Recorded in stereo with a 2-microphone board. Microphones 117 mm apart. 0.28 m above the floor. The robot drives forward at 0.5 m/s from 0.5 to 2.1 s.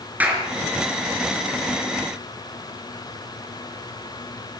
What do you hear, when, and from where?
0.2 s a clap: 15° right (ahead or behind), 4 m